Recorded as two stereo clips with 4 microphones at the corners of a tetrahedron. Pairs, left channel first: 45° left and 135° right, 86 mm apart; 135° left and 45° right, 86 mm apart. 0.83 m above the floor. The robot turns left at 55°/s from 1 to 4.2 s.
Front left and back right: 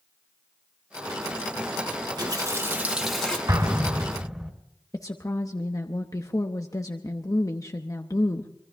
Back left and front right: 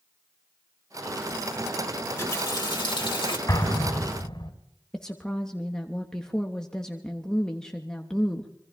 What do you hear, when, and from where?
2.2 s a running tap: 175° right, 2.0 m; by 3.4 s 120° left, 2.0 m
3.5 s an explosion: straight behind, 3 m; by 4.5 s 145° left, 3 m
4.9 s a woman speaking: 60° left, 0.9 m